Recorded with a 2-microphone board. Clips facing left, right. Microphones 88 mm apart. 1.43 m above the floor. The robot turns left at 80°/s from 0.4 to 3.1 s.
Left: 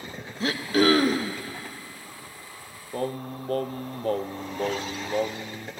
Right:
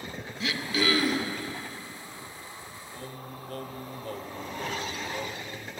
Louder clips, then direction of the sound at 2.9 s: Left 13 dB; 65° left (ahead or behind).